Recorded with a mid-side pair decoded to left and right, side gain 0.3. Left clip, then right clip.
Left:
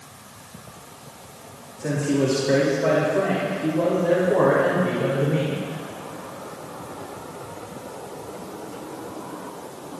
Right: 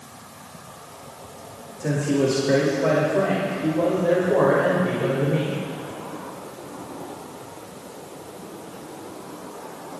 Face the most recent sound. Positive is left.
turn(degrees=5)